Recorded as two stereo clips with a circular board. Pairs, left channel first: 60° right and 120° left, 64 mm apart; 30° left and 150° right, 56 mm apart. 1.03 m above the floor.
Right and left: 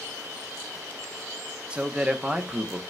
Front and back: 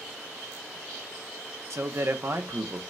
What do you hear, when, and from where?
1.7 s a man speaking: 170° right, 0.7 m